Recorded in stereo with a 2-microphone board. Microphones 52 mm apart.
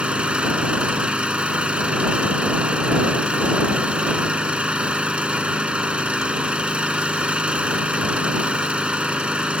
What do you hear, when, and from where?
0.0 s an engine running: 20° right (ahead or behind)